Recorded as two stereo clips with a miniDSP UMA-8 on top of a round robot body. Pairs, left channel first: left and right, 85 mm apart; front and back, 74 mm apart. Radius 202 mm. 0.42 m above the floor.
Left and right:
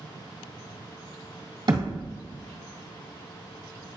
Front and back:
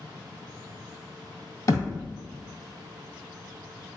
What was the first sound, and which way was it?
A thud, 50° right.